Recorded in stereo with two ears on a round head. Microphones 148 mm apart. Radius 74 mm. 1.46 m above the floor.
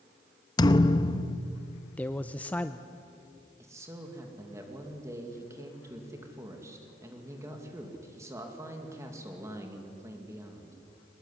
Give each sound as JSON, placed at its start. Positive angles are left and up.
{"t": 0.6, "sound": "a thud", "side_deg": 25, "distance_m": 0.8}
{"t": 2.0, "sound": "a man speaking", "side_deg": 10, "distance_m": 0.6}
{"t": 3.6, "sound": "a man speaking", "side_deg": -20, "distance_m": 2.5}